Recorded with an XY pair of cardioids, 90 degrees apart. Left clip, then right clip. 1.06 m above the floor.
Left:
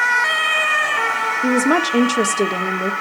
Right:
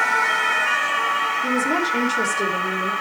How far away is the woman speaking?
About 2 m.